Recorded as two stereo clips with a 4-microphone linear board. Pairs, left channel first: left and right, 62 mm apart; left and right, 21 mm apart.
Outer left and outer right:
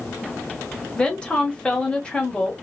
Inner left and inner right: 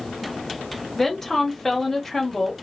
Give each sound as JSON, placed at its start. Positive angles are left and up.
{"t": 1.0, "sound": "a woman speaking", "side_deg": 15, "distance_m": 1.0}